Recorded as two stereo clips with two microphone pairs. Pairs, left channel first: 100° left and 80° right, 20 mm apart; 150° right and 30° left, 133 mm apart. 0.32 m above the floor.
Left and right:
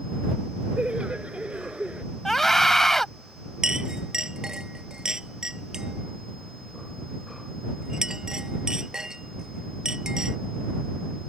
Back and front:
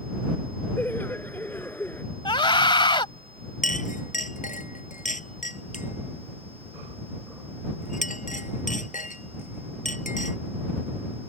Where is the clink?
130° right.